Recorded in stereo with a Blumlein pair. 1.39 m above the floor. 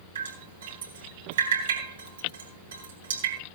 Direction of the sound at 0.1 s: 60° right.